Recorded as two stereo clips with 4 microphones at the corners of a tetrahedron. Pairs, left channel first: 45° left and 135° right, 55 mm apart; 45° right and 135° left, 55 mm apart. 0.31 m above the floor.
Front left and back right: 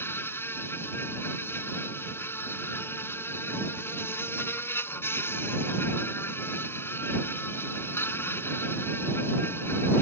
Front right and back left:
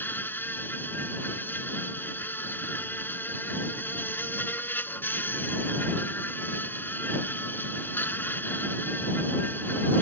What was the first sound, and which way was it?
An insect, straight ahead.